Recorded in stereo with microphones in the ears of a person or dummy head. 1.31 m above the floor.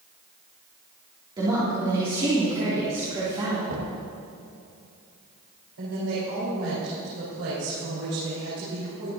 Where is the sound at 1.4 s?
25° right (ahead or behind), 3 m.